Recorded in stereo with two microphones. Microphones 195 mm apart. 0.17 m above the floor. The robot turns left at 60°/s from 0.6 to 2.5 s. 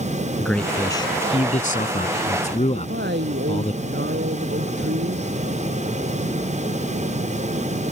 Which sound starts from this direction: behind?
A man speaking, at 0.4 s.